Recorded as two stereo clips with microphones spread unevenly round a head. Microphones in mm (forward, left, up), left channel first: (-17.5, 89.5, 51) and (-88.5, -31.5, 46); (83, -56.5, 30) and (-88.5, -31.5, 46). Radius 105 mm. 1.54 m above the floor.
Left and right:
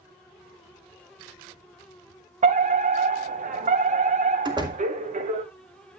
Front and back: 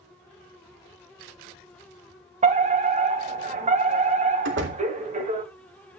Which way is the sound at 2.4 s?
140° right.